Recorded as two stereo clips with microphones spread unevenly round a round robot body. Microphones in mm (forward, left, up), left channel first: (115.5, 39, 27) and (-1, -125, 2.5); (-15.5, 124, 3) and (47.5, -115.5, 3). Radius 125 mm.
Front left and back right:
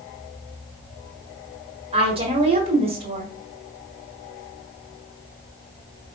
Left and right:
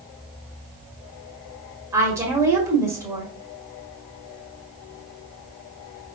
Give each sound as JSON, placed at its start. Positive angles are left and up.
{"t": 1.9, "sound": "a woman speaking", "azimuth_deg": -145, "distance_m": 1.3}